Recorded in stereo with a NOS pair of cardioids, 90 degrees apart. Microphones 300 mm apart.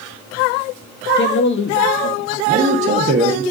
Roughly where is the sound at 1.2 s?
Ahead left.